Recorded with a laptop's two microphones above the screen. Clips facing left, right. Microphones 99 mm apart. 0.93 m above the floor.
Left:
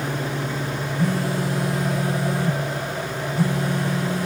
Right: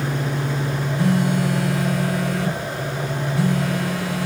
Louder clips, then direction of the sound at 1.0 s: Right 4 dB; 85° right.